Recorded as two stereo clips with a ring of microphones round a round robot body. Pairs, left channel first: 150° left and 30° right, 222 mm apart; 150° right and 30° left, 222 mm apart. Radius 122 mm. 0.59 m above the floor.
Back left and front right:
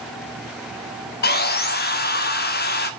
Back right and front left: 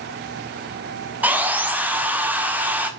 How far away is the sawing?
About 1.7 m.